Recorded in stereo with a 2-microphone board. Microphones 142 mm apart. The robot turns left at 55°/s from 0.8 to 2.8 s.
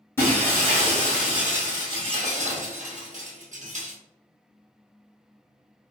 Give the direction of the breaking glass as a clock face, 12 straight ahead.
11 o'clock.